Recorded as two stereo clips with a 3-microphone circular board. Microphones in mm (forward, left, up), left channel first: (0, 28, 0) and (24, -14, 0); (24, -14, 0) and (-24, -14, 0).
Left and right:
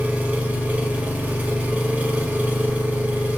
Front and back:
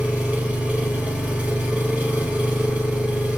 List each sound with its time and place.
0.0 s an engine running: 120° right, 1.1 m